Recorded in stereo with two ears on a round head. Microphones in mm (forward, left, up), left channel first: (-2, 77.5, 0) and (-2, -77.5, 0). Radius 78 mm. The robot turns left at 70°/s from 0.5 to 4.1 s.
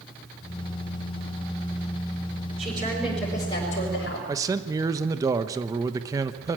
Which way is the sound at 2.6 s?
145° right.